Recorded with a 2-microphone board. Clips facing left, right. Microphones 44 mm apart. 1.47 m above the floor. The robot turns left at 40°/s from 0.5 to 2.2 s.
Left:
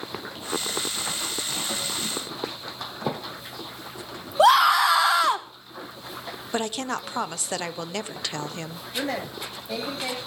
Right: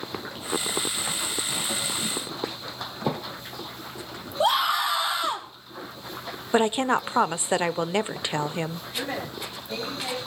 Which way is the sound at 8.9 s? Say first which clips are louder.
Left 4 dB; 80° left.